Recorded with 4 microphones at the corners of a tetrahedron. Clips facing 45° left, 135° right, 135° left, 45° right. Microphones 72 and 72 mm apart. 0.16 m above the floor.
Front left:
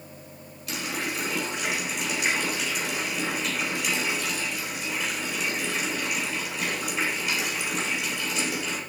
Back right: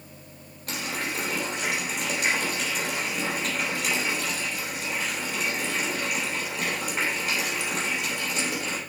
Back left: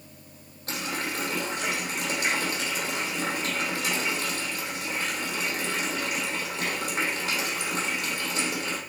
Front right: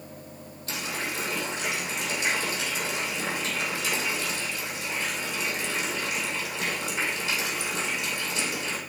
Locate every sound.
0.7 s a running tap: straight behind, 3.5 m